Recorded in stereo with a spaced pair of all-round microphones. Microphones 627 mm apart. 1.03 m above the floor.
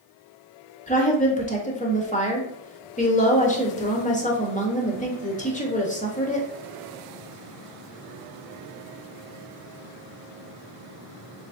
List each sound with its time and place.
0.9 s a woman speaking: 10° left (ahead or behind), 1.1 m